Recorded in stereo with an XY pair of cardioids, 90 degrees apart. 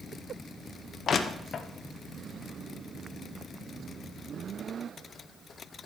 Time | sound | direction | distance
1.1 | crushing | 60° left | 0.9 m